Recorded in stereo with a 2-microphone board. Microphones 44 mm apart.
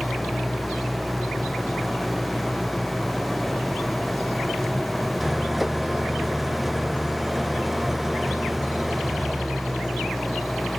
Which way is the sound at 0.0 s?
5° right (ahead or behind).